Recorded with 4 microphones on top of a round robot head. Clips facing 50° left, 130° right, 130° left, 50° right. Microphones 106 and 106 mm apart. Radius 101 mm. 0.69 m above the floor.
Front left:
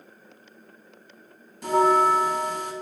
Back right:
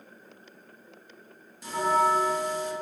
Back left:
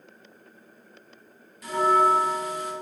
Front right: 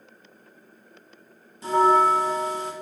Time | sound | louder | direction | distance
1.6 | a bell | front left 5 dB, front right 3 dB | 15° left | 0.8 m